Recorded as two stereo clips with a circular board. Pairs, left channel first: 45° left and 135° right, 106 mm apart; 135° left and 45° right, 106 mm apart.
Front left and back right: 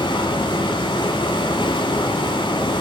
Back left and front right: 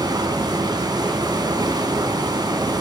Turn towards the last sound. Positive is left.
turn(degrees=5)